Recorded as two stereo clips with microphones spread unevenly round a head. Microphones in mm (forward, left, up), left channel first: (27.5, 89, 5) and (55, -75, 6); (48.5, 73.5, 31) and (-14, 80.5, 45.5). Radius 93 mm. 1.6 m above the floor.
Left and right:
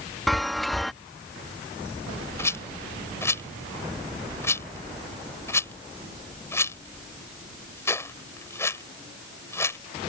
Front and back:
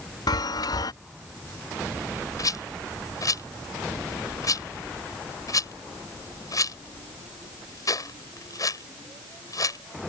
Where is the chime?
10° left.